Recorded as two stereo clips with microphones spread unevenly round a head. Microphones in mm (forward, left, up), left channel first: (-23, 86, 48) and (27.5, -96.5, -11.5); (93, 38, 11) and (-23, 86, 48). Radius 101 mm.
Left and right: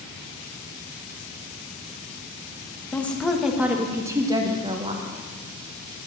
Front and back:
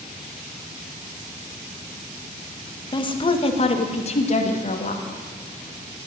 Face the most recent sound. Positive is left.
turn(degrees=-15)